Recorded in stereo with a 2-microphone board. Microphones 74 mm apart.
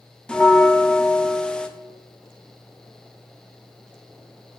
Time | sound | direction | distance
0.3 | a bell | 10° left (ahead or behind) | 0.7 m